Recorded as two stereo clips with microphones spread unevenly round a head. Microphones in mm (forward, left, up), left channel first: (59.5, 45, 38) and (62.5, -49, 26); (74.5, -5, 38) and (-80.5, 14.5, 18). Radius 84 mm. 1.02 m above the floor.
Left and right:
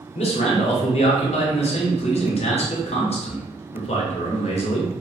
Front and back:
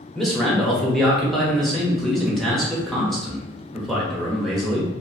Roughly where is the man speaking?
Left.